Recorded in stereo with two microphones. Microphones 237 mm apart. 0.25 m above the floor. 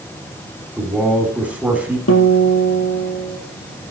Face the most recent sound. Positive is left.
turn(degrees=85)